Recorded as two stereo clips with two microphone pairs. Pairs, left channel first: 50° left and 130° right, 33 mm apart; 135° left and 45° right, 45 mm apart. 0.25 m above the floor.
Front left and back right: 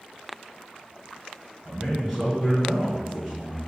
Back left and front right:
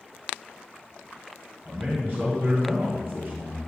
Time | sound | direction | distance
1.6 | a man speaking | 65° right | 2 m